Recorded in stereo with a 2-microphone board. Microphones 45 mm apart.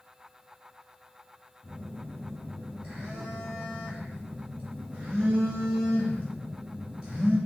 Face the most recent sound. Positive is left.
turn(degrees=-25)  # may be behind; listen again after turning